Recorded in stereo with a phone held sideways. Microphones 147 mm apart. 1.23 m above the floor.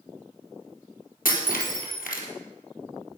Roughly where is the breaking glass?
Left.